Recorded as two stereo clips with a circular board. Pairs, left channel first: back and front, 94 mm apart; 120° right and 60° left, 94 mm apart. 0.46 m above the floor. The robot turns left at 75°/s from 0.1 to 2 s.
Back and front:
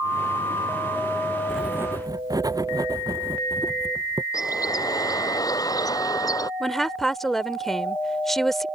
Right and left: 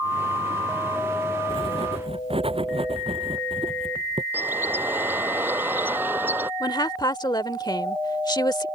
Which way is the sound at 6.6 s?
95° right.